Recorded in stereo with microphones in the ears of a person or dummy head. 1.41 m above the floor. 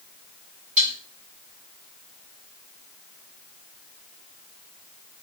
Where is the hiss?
I don't hear a hiss.